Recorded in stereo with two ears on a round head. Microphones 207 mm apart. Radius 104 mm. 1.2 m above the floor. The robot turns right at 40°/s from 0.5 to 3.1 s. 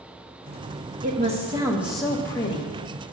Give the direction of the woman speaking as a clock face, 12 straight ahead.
1 o'clock.